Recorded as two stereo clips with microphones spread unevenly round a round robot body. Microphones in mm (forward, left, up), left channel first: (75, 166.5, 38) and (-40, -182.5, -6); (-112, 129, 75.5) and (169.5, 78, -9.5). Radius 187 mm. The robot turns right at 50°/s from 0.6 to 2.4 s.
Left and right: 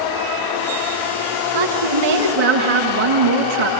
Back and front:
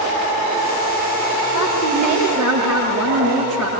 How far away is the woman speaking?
About 6 m.